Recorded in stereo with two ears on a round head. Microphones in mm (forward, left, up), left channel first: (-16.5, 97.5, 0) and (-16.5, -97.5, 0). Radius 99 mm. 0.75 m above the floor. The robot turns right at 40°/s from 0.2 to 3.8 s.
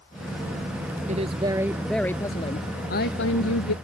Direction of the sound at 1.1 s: 30° right.